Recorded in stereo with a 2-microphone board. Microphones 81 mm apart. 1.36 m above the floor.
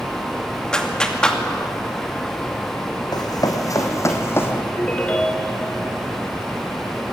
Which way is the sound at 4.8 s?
20° left (ahead or behind).